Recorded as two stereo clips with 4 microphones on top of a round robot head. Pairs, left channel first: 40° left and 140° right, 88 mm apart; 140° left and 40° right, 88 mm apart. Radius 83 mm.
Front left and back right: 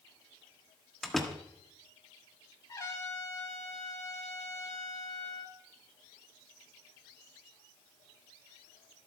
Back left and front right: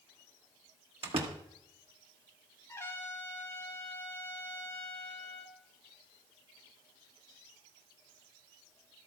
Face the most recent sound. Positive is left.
turn(degrees=85)